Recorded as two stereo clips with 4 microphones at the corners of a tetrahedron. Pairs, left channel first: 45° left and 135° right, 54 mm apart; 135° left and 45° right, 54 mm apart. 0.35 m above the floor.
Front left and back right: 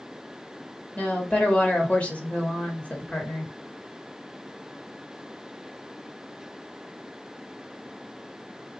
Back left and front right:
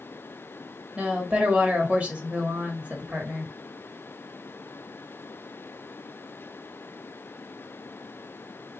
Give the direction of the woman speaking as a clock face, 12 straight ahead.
12 o'clock.